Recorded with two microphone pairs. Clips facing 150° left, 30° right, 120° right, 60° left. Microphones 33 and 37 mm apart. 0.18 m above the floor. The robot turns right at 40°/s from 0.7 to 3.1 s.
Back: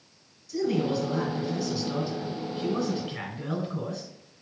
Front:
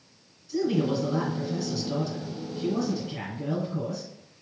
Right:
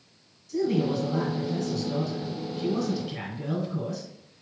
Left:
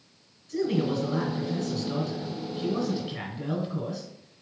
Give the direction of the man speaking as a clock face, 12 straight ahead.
11 o'clock.